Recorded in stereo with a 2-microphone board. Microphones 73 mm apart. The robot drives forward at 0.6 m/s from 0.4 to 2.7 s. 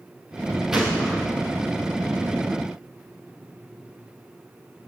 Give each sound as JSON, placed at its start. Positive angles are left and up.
{"t": 0.7, "sound": "a gunshot", "side_deg": -5, "distance_m": 4.0}